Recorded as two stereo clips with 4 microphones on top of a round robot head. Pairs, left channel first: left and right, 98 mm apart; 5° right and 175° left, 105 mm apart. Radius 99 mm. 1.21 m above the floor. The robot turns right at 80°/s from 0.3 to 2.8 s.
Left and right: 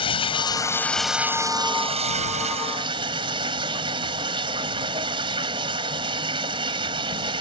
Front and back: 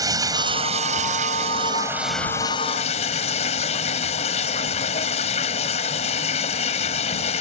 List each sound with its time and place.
0.0 s running water: 120° left; by 7.4 s 40° right